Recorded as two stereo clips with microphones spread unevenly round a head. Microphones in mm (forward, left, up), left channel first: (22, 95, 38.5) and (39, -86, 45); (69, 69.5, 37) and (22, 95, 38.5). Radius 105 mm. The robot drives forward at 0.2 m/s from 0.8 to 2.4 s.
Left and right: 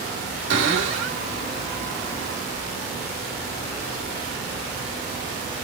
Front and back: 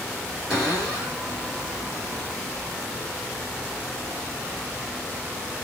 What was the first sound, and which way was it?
A cupboard door, 115° right.